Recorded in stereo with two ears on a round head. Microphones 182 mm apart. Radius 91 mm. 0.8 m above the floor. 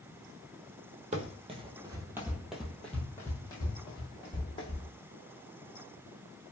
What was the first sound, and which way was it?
Running footsteps, 35° right (ahead or behind).